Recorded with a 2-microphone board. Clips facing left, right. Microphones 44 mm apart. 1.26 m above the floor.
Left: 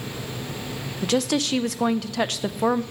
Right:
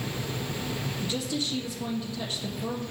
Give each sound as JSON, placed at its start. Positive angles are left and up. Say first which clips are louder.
{"t": 1.0, "sound": "a woman speaking", "louder": "left 11 dB", "side_deg": 75, "distance_m": 0.7}